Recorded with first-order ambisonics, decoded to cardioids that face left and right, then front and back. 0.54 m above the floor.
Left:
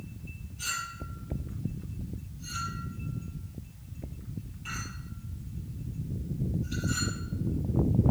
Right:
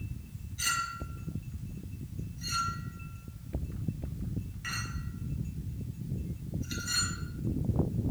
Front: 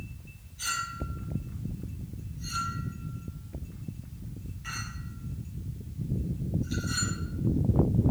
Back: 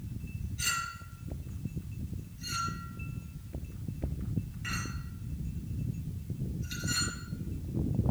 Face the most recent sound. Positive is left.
turn(degrees=-105)